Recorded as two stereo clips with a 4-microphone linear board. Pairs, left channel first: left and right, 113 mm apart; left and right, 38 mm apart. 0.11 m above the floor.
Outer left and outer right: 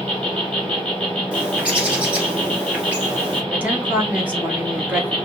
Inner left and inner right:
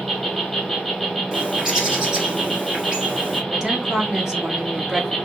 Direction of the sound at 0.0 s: 10° left (ahead or behind).